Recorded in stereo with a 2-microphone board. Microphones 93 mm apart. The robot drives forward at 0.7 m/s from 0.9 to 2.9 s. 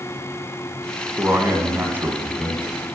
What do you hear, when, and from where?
1.2 s a man speaking: 20° right (ahead or behind), 1.3 m